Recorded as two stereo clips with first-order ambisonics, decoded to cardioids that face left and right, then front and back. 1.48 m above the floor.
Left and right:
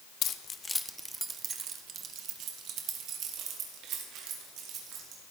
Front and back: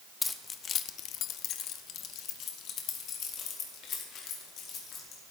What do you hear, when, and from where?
0.2 s keys jangling: 75° left, 0.5 m; by 5.2 s 50° right, 2.5 m